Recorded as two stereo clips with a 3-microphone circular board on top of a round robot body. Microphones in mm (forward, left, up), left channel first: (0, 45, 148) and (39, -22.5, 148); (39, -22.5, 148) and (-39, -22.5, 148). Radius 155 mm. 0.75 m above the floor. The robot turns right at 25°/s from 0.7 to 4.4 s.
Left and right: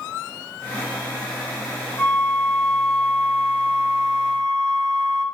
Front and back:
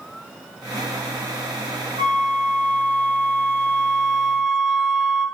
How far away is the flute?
About 1.5 m.